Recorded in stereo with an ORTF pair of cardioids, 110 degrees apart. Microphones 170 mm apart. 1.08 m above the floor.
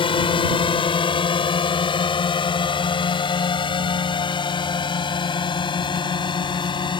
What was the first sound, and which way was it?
A drone, 30° left.